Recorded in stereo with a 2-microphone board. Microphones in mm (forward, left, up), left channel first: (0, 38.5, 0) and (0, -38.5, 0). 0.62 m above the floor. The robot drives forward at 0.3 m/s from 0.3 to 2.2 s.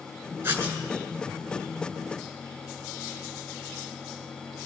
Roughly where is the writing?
Right.